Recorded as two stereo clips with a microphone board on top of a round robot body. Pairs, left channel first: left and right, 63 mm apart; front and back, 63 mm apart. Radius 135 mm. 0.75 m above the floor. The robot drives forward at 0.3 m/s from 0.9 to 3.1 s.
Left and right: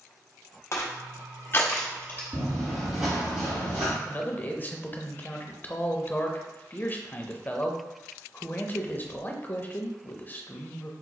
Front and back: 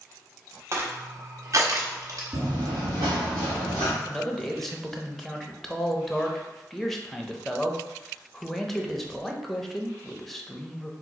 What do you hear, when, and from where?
0.7 s crushing: 130° left, 0.7 m; by 2.2 s 150° left, 1.0 m
2.3 s running footsteps: 150° left, 0.9 m; by 4.0 s 140° right, 1.6 m
4.0 s a man speaking: 80° left, 0.8 m